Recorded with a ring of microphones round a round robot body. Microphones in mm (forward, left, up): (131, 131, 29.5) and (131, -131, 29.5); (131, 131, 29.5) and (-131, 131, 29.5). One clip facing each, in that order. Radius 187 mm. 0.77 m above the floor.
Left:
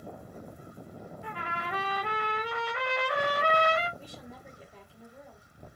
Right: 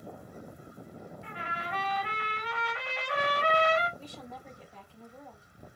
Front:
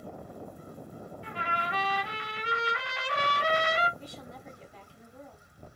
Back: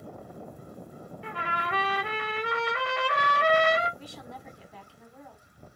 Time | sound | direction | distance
1.2 | a trumpet | 150° left | 1.8 m
4.0 | a woman speaking | 170° left | 2.5 m